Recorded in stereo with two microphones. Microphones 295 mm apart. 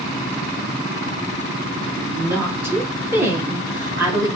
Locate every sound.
1.9 s a woman speaking: 10° right (ahead or behind), 6.5 m